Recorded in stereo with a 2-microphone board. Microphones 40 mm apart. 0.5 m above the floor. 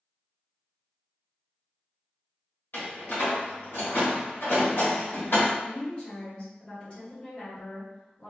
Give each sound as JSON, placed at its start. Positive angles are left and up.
{"t": 2.7, "sound": "a door slam", "side_deg": 70, "distance_m": 1.2}
{"t": 5.6, "sound": "a woman speaking", "side_deg": 30, "distance_m": 1.7}